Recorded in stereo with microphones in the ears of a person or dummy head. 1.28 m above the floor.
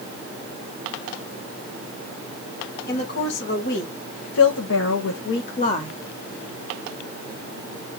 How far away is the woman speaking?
About 2 m.